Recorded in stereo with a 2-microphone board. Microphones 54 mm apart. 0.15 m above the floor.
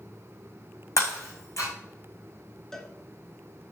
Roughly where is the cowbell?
Centre.